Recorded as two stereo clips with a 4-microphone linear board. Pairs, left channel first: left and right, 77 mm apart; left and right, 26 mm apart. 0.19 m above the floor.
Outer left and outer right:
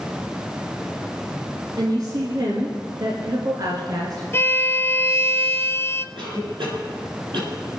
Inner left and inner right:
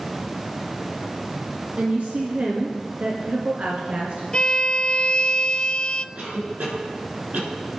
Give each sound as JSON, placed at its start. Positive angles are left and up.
{"t": 1.8, "sound": "a woman speaking", "side_deg": -55, "distance_m": 2.0}
{"t": 4.3, "sound": "a violin", "side_deg": 30, "distance_m": 0.6}
{"t": 6.2, "sound": "a cough", "side_deg": -75, "distance_m": 6.0}